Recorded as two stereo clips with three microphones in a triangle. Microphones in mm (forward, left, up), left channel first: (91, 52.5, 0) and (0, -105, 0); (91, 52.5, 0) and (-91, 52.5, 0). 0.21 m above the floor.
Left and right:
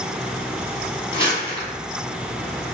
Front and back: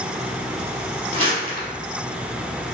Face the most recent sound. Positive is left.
turn(degrees=120)